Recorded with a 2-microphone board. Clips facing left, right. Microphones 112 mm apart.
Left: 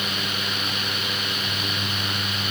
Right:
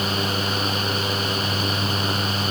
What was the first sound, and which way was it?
Only background noise.